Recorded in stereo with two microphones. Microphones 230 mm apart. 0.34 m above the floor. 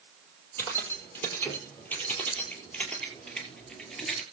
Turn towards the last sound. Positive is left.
turn(degrees=0)  # may be behind; listen again after turning